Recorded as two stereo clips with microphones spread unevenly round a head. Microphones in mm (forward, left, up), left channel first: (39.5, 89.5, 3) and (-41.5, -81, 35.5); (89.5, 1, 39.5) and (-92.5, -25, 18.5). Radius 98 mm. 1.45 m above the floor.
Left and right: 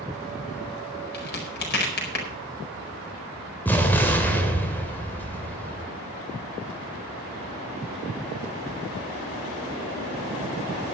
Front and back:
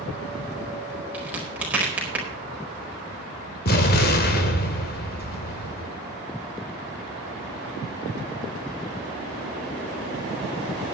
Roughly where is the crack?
Left.